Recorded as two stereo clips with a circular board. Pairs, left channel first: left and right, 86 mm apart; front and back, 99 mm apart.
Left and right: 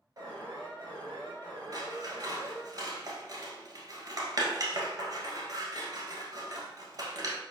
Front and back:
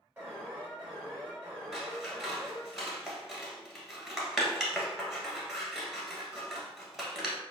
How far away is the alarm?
About 1.9 m.